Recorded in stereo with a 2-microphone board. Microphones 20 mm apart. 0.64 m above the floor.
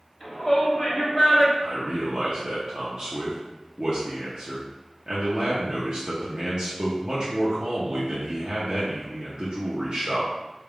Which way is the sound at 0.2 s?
10° left (ahead or behind).